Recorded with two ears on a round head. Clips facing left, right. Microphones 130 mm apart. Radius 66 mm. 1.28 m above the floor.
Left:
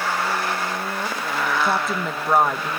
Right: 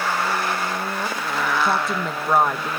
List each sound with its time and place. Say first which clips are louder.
1.6 s a woman speaking: even; centre (ahead or behind)